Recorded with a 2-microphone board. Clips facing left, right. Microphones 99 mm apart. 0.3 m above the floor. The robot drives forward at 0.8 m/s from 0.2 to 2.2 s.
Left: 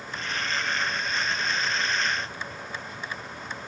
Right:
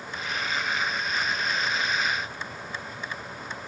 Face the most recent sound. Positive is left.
No sound to turn to.